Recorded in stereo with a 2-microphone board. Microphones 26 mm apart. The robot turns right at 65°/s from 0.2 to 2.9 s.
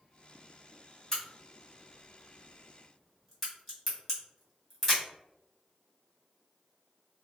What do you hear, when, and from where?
1.1 s a crack: 10° left (ahead or behind), 1.7 m